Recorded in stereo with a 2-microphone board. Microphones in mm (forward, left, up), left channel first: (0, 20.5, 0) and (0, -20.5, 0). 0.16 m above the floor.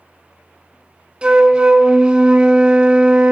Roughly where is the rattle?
I don't hear a rattle.